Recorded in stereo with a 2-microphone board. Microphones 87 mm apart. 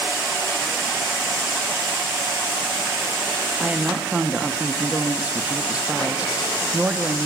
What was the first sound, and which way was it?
A woman speaking, 15° right (ahead or behind).